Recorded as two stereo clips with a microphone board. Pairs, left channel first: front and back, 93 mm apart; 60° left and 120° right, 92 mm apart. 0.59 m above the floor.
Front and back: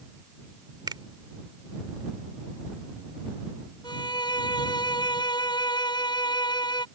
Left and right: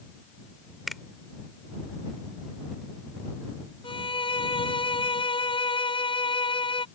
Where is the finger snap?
150° left.